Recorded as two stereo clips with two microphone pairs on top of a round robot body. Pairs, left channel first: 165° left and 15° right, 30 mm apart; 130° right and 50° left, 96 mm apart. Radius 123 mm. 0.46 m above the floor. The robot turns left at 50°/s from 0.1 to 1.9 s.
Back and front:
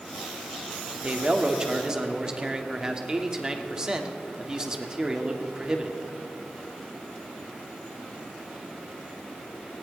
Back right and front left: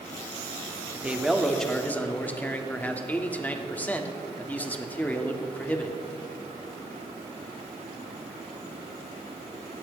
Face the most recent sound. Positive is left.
turn(degrees=-60)